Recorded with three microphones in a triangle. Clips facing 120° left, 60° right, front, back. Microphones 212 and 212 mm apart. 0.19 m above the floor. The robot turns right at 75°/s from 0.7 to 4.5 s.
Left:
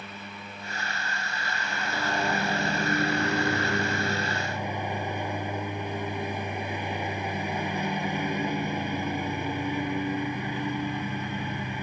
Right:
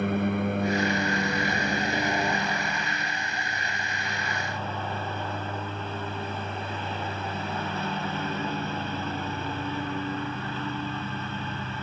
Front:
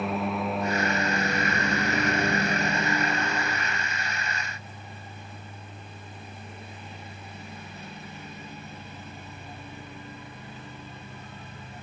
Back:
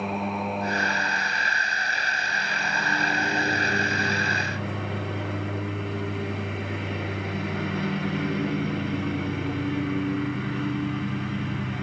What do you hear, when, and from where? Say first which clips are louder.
0.0 s a lawn mower: right 17 dB, even; 90° right; by 11.8 s 165° right